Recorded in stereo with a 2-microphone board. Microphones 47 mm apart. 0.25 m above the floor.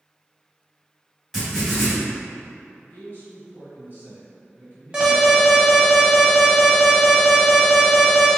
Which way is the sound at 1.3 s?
5° right (ahead or behind).